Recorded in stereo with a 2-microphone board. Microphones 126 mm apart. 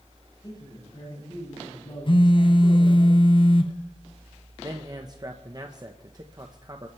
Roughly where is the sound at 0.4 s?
Left.